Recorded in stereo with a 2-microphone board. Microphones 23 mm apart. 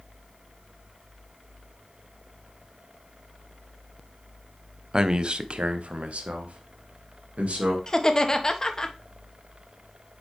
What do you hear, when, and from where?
4.9 s a man speaking: 30° right (ahead or behind), 0.6 m; by 7.8 s 85° right, 2 m
7.9 s laughter: 30° left (ahead or behind), 1.2 m